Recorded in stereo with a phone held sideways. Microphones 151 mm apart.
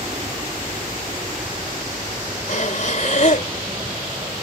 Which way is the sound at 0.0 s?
35° right (ahead or behind).